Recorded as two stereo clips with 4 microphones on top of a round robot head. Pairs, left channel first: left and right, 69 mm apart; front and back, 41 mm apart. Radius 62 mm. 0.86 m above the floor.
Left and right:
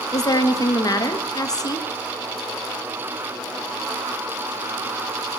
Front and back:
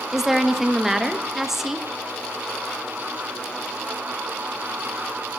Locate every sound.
0.1 s a woman speaking: 95° left, 1.1 m